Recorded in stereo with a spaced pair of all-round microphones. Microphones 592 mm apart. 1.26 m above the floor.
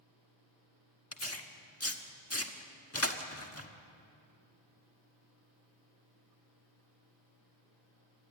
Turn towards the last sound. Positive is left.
turn(degrees=20)  # may be behind; listen again after turning